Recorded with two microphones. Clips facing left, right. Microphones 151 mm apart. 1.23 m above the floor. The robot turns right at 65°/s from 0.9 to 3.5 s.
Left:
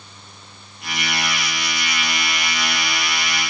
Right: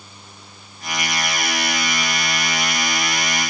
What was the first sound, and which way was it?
Only background noise.